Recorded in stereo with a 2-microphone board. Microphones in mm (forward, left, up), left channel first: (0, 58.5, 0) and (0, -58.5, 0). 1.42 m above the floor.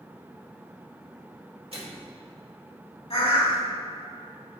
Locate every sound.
1.7 s a microwave: 55° right (ahead or behind), 2 m
3.1 s a bird: 65° left (ahead or behind), 1.9 m